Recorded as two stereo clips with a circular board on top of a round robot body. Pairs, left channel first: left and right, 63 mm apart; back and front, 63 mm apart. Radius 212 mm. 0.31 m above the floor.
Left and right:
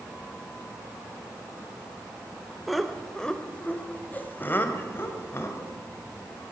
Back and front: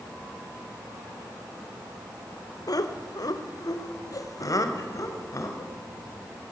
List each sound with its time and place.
2.7 s laughter: straight behind, 2 m; by 5.7 s 140° left, 4 m